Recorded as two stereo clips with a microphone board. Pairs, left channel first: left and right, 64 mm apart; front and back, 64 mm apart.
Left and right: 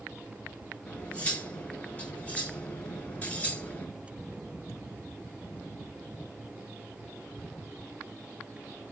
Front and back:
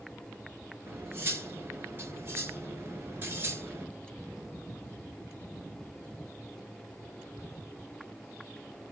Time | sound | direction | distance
0.9 | cutlery clinking | 150° left | 1.1 m